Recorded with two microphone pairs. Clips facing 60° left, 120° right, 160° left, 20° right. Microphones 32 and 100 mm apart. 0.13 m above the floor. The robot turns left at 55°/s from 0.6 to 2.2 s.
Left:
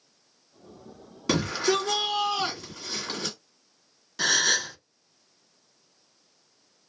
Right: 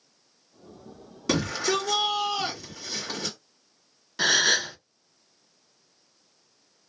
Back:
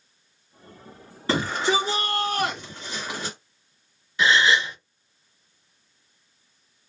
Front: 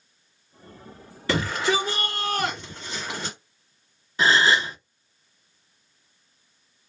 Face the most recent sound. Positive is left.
turn(degrees=-50)